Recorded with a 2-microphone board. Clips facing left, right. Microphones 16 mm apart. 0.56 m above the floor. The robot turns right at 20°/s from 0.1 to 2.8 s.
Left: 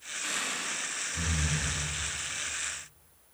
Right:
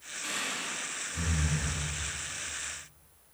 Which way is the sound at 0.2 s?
30° left (ahead or behind).